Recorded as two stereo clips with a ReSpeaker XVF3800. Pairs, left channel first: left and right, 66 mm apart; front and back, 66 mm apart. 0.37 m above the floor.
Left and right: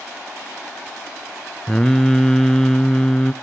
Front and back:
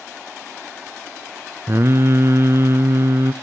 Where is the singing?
165° left, 0.6 m.